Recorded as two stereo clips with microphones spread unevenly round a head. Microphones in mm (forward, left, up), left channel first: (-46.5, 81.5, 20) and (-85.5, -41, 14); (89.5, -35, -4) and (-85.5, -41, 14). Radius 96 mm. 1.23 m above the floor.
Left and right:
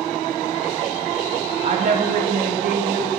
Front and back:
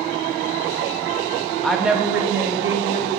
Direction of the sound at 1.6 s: 80° right.